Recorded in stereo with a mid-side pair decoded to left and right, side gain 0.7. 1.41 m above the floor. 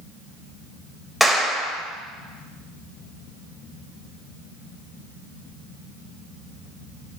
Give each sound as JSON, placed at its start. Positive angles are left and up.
{"t": 1.2, "sound": "a clap", "azimuth_deg": 0, "distance_m": 5.0}